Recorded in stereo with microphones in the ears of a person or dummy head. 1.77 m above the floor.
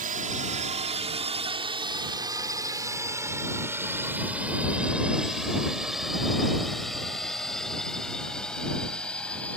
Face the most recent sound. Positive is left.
turn(degrees=10)  # may be behind; listen again after turning